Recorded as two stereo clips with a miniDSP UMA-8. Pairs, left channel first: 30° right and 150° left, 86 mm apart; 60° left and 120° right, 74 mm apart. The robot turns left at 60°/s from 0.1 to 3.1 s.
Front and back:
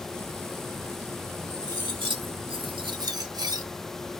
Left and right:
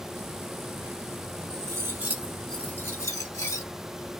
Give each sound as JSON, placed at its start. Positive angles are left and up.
{"t": 1.5, "sound": "cutlery clinking", "azimuth_deg": -155, "distance_m": 1.4}